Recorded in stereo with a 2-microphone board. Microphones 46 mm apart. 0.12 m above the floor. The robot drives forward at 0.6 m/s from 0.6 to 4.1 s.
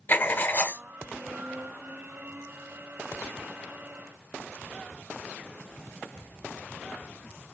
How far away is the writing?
About 0.8 m.